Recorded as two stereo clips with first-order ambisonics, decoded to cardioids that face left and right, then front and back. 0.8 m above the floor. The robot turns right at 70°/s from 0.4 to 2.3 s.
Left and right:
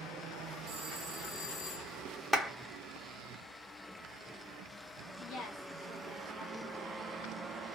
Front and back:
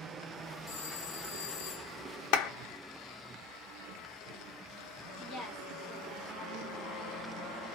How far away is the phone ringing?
About 1.3 m.